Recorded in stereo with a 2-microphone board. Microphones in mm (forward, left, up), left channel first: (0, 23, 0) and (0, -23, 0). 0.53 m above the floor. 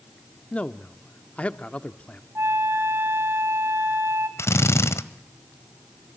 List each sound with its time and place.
0.5 s a man speaking: 30° left (ahead or behind), 0.8 m
2.4 s a flute: 70° right (ahead or behind), 3.5 m
4.4 s a drill: 80° left, 1.3 m